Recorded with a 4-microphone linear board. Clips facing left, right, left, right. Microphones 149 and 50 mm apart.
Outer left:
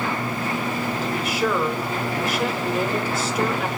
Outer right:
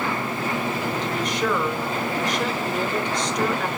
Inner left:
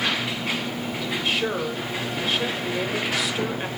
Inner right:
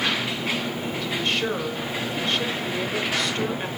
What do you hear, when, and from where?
1.0 s a woman speaking: 5° left (ahead or behind), 1.4 m